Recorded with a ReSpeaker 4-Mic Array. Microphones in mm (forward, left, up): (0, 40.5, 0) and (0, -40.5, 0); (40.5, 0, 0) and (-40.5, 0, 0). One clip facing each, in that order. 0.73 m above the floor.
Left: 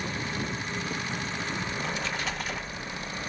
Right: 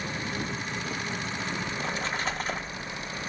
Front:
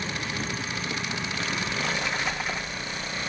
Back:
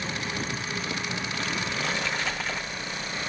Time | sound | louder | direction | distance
1.7 | a splash | right 1 dB, front 1 dB | 65° right | 0.9 m